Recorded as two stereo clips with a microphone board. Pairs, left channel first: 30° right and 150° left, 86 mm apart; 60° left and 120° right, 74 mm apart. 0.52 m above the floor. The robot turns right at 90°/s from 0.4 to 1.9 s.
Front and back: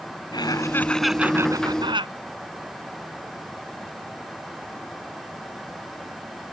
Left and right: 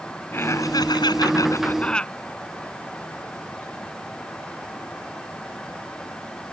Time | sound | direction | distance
0.3 | laughter | straight ahead | ?